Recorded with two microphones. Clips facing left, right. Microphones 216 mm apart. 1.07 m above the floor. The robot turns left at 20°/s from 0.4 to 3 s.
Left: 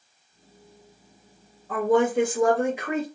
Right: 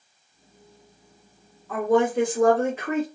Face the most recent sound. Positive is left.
turn(degrees=10)  # may be behind; listen again after turning